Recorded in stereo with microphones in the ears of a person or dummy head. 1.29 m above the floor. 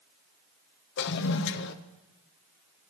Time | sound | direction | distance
1.0 | a toilet flushing | 60° left (ahead or behind) | 1.1 m